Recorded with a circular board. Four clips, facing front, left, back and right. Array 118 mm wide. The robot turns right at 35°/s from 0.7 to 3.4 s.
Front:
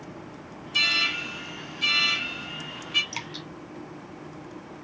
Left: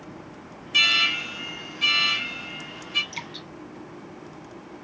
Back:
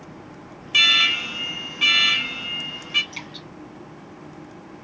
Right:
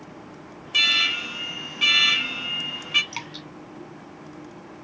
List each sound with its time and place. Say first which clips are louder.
0.7 s an alarm: left 1 dB, back 6 dB; straight behind, 1.2 m; by 3.0 s 100° right, 1.2 m
3.1 s dripping: right 1 dB, front 1 dB; 60° right, 2.5 m; by 3.5 s 50° right, 2.5 m